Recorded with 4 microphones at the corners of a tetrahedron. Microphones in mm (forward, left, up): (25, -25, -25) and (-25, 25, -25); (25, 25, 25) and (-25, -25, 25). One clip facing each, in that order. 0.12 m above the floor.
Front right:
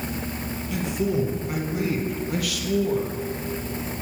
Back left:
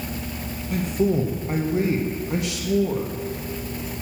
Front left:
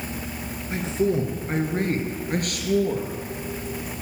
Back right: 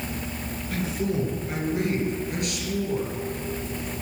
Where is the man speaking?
105° left, 2 m; by 3.2 s 65° left, 2.5 m.